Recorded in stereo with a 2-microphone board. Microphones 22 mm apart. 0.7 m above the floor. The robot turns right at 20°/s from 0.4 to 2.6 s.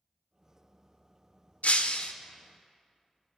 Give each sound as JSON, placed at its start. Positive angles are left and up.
{"t": 1.6, "sound": "breaking glass", "side_deg": 80, "distance_m": 0.7}